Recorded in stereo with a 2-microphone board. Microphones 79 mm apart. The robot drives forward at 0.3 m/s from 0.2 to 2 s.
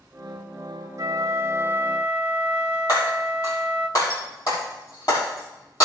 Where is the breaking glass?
50° left (ahead or behind), 6.5 m.